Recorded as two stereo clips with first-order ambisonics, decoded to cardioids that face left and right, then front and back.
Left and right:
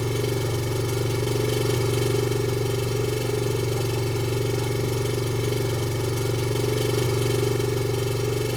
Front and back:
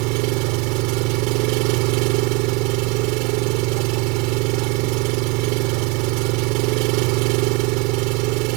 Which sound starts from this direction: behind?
An engine running, at 0.0 s.